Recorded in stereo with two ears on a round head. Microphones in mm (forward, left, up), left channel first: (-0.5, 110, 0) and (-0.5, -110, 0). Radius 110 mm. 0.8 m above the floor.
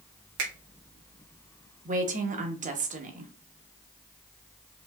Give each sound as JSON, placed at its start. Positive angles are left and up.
{"t": 0.4, "sound": "a finger snap", "side_deg": -60, "distance_m": 1.7}
{"t": 1.9, "sound": "a woman speaking", "side_deg": -30, "distance_m": 1.1}